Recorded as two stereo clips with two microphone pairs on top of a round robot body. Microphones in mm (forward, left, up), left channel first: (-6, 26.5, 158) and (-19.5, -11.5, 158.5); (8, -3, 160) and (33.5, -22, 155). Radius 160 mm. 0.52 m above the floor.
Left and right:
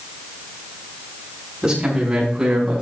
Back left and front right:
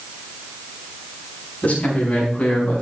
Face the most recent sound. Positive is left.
turn(degrees=-170)